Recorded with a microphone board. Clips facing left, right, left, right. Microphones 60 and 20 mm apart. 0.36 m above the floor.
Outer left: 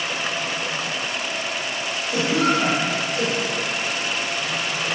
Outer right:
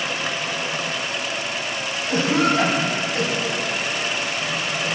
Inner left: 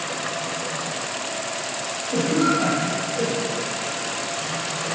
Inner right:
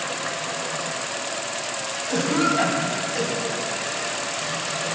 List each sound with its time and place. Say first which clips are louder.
2.1 s a cough: outer right 1 dB, inner left 1 dB; 45° right (ahead or behind), 3 m